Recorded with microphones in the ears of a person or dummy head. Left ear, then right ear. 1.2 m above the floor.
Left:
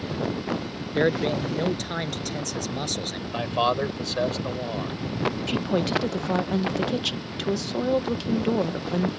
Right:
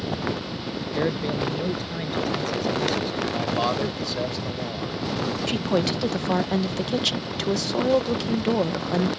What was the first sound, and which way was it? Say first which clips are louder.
A man speaking: left 3 dB; 45° left (ahead or behind).